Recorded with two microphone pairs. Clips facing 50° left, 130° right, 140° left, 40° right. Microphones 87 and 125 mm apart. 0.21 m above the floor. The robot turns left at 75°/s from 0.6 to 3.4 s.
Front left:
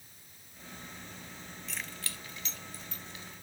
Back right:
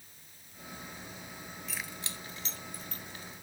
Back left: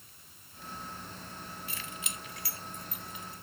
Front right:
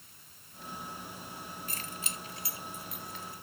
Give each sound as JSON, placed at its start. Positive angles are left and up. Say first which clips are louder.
{"t": 1.7, "sound": "keys jangling", "louder": "even, front right 1 dB", "azimuth_deg": -40, "distance_m": 0.9}